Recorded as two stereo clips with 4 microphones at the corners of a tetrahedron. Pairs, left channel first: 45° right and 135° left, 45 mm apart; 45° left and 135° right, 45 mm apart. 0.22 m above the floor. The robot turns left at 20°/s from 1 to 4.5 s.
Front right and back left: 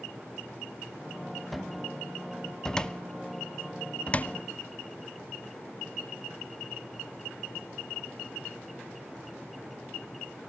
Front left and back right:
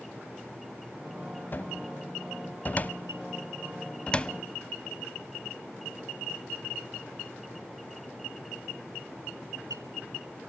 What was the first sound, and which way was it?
A cupboard door, 45° left.